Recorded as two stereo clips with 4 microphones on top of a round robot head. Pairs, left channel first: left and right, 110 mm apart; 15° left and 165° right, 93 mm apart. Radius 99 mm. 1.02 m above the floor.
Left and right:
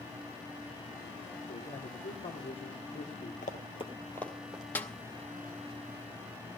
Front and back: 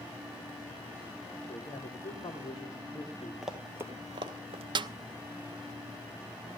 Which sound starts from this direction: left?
Running footsteps, at 3.4 s.